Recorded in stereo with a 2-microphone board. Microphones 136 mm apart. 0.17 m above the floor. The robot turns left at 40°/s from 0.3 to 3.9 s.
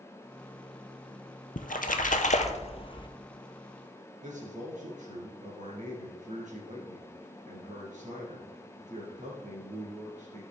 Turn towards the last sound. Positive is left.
turn(degrees=-65)  # may be behind; listen again after turning